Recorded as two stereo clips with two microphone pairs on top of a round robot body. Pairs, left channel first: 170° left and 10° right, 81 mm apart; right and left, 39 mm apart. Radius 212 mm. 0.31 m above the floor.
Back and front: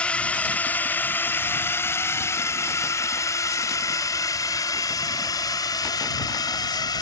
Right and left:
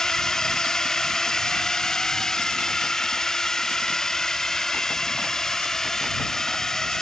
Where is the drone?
135° right; by 7.0 s 165° right.